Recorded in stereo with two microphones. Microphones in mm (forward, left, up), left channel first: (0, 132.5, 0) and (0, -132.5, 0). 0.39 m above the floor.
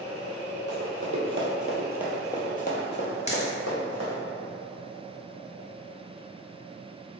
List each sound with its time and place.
0.7 s running footsteps: 60° right (ahead or behind), 1.0 m; by 4.2 s 70° left (ahead or behind), 1.4 m
3.3 s a dropped coin: 25° left (ahead or behind), 0.5 m